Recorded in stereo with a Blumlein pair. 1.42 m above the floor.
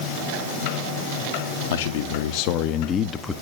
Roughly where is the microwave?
I don't hear a microwave.